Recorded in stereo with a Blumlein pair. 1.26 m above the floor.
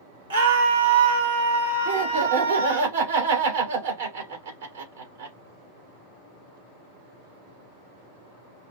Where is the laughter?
70° right, 3 m.